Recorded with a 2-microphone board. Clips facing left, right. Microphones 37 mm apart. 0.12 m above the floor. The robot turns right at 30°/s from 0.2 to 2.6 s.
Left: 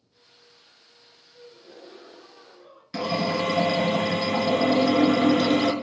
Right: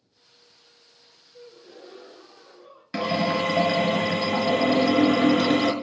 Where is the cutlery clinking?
I don't hear cutlery clinking.